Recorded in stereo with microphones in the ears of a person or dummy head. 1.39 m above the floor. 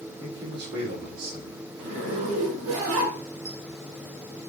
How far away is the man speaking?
About 2.5 m.